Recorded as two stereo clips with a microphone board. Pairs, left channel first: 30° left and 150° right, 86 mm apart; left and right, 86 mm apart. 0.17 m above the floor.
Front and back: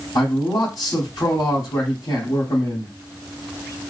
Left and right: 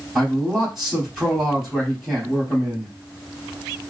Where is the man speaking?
5° right, 3 m.